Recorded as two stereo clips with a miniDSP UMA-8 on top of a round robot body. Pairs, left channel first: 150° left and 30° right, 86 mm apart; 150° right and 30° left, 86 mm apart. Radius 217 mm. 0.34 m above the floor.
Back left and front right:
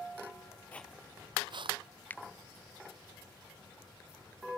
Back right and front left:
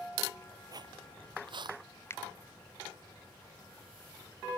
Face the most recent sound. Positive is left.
turn(degrees=-165)